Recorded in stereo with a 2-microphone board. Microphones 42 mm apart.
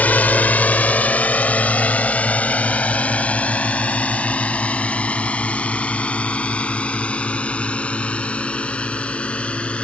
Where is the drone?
40° left (ahead or behind); by 9.8 s 25° left (ahead or behind).